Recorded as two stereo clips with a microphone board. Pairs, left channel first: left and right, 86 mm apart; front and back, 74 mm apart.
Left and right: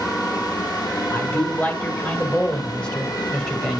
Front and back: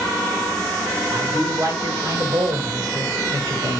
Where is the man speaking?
145° left, 2 m; by 3.8 s 175° left, 3 m.